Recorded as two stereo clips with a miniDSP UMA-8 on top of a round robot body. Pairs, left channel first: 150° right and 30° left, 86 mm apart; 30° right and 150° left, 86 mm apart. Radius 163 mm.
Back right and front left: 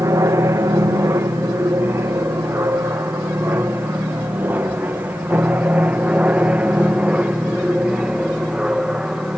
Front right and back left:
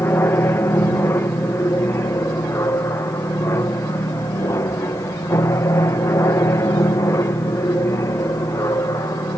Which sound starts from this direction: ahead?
An aircraft, at 0.0 s.